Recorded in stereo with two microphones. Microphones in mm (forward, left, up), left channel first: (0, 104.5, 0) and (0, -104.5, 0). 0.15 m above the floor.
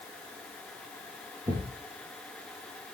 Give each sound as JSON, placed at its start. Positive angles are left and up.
{"t": 1.5, "sound": "a thud", "side_deg": -20, "distance_m": 7.0}